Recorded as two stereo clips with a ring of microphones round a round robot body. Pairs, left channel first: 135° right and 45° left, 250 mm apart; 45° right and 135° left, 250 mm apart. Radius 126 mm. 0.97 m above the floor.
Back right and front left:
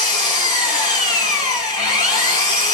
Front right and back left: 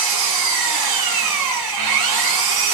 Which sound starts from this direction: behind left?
An engine running, at 0.0 s.